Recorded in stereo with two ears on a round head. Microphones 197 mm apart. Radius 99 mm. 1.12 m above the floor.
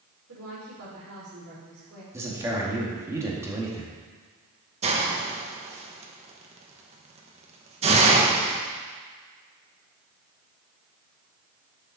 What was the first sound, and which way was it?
A woman speaking, 70° right (ahead or behind).